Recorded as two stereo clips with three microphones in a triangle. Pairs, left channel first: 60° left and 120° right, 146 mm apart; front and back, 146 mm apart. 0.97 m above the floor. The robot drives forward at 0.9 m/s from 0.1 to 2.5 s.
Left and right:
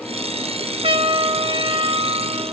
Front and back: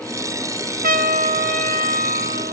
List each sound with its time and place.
0.8 s a trumpet: 170° right; by 2.5 s 175° right